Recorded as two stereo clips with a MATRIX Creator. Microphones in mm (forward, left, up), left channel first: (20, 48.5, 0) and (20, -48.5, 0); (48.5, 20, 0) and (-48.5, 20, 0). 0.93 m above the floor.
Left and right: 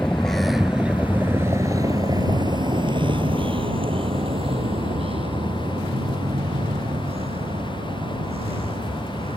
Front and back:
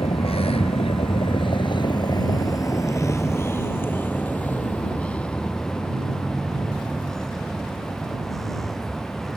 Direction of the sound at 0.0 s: 10° left.